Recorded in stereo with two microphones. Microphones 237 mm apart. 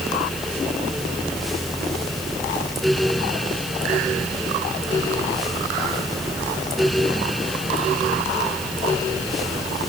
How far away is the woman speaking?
No woman speaking in this recording.